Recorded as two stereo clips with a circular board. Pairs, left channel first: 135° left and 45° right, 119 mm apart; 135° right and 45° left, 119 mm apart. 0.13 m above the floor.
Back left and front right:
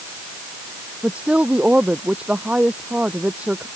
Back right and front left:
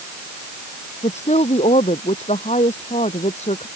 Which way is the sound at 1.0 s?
125° right.